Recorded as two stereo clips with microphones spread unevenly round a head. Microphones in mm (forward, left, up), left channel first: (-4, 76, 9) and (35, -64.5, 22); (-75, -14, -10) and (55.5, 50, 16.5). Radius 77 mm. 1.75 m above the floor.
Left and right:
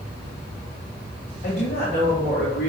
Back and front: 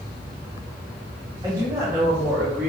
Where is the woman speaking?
90° left, 2.5 m; by 2.7 s 95° left, 3 m.